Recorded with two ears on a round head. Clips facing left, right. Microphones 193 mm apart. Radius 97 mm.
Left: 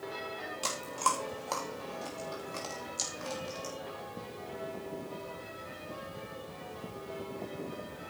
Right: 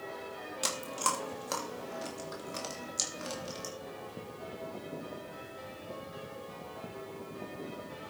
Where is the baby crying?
No baby crying in this recording.